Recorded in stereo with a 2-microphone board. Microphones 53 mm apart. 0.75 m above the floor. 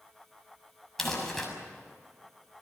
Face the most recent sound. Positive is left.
turn(degrees=5)  # may be behind; listen again after turning